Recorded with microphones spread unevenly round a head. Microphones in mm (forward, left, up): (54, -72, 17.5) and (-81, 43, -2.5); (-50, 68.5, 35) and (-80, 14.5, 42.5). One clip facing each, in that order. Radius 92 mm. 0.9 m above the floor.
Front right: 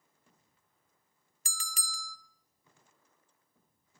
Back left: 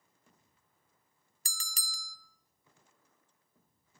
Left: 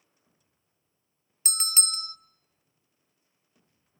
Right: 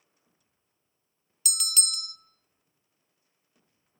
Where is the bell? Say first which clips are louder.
Front right 5 dB, left 2 dB; 105° left, 1.1 m.